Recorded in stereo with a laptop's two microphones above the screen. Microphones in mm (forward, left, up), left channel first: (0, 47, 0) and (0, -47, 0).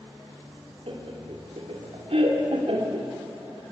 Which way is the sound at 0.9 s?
75° right (ahead or behind).